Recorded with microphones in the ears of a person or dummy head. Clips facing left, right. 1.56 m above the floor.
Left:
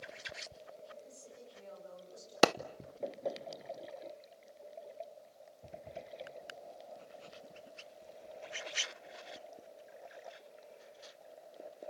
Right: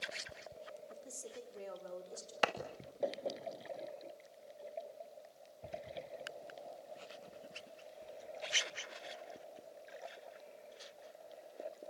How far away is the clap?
About 0.9 m.